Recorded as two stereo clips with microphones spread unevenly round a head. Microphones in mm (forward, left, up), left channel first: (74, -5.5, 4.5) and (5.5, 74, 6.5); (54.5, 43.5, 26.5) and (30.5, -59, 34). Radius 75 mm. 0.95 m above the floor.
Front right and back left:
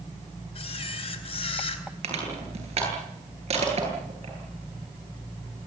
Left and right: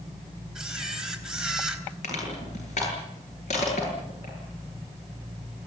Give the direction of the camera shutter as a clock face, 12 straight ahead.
1 o'clock.